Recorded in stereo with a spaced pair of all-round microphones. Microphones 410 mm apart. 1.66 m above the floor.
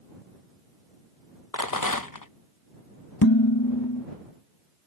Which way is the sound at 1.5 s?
50° left (ahead or behind).